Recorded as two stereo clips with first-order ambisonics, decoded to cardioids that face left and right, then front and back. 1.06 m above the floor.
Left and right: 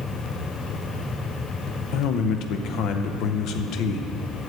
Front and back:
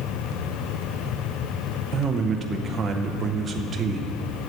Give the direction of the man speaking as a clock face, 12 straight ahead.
8 o'clock.